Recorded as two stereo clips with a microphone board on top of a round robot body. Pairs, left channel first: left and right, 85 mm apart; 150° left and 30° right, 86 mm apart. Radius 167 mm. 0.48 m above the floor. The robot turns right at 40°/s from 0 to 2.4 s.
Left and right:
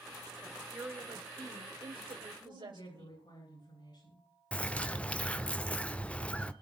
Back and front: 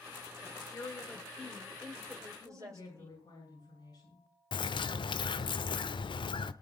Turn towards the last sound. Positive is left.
turn(degrees=165)